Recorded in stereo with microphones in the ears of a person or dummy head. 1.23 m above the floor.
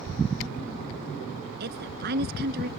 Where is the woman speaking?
55° right (ahead or behind).